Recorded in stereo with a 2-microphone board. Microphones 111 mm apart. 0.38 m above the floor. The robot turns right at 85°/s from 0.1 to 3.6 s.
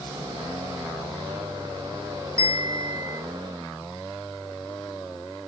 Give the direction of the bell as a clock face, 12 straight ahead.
5 o'clock.